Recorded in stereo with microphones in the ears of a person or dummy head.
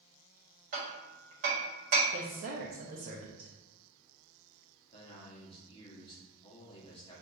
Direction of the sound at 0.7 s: 35° right (ahead or behind).